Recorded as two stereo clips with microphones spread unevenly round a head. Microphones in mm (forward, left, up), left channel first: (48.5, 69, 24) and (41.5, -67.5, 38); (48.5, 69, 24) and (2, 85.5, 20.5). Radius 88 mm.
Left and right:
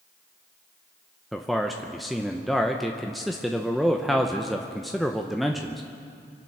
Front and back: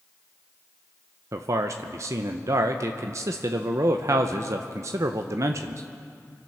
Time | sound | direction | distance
1.3 | a man speaking | 175° left | 0.6 m